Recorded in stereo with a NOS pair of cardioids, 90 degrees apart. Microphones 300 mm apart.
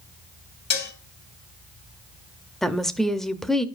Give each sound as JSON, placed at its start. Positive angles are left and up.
{"t": 0.7, "sound": "dishes clattering", "azimuth_deg": 65, "distance_m": 2.0}
{"t": 2.6, "sound": "a woman speaking", "azimuth_deg": 0, "distance_m": 0.8}